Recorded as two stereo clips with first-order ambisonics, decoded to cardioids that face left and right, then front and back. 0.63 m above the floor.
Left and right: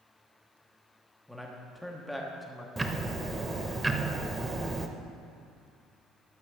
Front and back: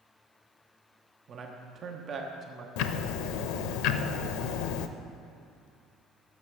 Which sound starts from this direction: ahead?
Ticking, at 2.8 s.